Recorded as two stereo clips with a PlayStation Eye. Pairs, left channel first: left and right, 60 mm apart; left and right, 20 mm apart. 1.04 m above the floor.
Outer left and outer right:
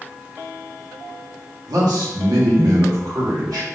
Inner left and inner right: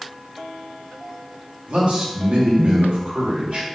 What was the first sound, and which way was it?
A man speaking, 85° right.